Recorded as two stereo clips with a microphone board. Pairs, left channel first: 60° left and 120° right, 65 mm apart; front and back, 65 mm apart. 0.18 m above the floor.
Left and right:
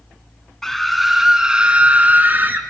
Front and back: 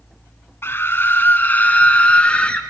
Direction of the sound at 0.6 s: 20° right.